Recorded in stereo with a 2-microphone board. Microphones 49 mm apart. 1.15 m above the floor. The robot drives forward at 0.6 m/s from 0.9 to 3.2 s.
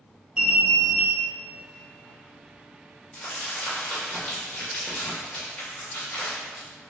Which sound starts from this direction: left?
Crumpling, at 3.1 s.